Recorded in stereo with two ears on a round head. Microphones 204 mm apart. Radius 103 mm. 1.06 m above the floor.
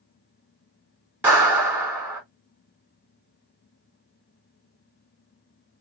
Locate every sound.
1.2 s a clap: 10° right (ahead or behind), 2.5 m